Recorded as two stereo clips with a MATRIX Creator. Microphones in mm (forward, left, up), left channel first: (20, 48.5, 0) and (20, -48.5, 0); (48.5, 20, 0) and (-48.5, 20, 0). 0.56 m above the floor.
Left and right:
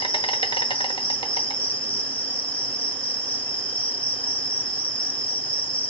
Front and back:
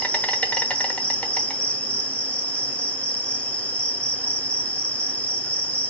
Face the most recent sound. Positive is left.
turn(degrees=75)